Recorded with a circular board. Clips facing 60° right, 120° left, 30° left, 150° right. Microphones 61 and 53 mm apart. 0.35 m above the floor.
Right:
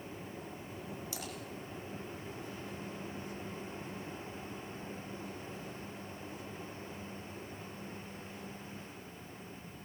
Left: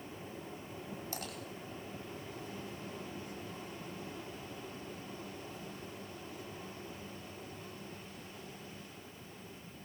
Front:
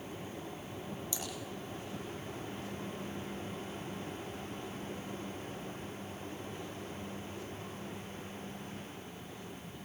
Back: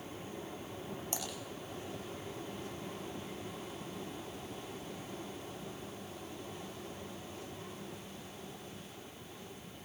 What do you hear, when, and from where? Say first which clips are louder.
1.1 s typing on a keyboard: left 1 dB, back 3 dB; 165° left, 9.5 m